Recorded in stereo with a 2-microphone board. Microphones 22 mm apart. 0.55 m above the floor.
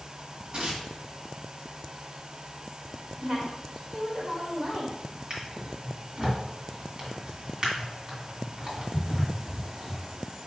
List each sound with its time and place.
0.5 s tearing paper: 50° right (ahead or behind), 1.6 m
3.2 s a woman speaking: 40° right (ahead or behind), 2 m
5.3 s a drawer: 40° right (ahead or behind), 1.6 m